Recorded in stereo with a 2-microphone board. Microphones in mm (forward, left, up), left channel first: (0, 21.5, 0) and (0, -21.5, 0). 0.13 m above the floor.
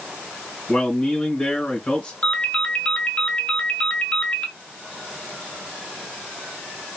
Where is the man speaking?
30° left (ahead or behind), 1.9 m.